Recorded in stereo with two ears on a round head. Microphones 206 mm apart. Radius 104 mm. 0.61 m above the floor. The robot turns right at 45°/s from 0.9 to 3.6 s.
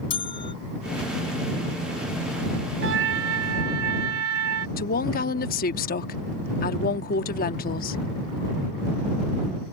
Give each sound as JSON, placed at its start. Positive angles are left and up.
{"t": 0.1, "sound": "a bell", "side_deg": 25}
{"t": 2.8, "sound": "a trumpet", "azimuth_deg": -115}
{"t": 4.8, "sound": "a woman speaking", "side_deg": 40}